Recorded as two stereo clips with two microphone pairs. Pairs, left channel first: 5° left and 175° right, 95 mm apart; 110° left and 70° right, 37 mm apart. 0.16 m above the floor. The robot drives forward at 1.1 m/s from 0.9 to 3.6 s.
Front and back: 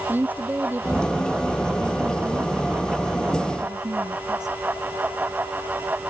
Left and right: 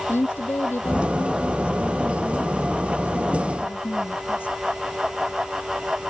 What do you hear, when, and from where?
0.1 s a woman speaking: 115° left; by 4.5 s 140° left